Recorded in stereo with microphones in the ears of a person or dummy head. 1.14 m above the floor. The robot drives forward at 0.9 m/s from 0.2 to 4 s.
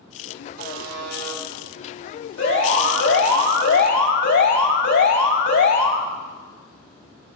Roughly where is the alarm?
Left.